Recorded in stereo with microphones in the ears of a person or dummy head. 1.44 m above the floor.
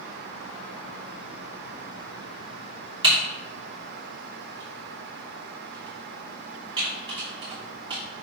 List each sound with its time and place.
3.0 s typing on a keyboard: 25° right (ahead or behind), 3 m